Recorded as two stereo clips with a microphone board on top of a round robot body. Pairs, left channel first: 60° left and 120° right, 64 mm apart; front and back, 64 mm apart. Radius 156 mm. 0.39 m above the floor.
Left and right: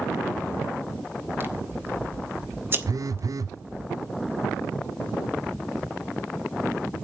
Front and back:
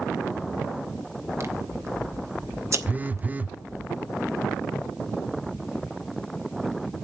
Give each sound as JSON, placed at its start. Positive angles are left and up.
{"t": 1.4, "sound": "scissors", "azimuth_deg": -165, "distance_m": 2.0}
{"t": 2.9, "sound": "a phone buzzing", "azimuth_deg": -115, "distance_m": 0.6}